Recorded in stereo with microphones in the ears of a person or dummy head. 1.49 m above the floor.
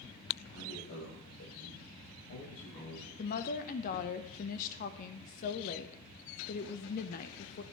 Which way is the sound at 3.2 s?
45° left (ahead or behind).